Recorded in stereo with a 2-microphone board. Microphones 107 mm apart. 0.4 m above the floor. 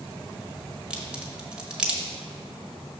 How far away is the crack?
About 1.0 m.